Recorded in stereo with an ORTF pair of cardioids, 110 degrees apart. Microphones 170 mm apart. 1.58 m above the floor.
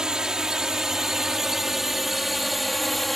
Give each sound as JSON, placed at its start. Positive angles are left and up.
{"t": 0.0, "sound": "a drone", "azimuth_deg": -5}